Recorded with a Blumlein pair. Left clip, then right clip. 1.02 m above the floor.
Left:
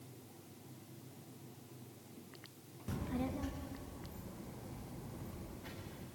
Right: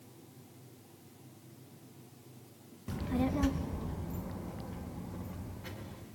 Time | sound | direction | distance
2.9 | a child speaking | 5° right | 0.5 m